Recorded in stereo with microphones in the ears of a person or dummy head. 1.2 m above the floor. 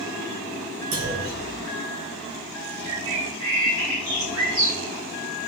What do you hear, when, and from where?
0.9 s a clunk: 50° right (ahead or behind), 2 m
2.9 s a bird: 55° right (ahead or behind), 2 m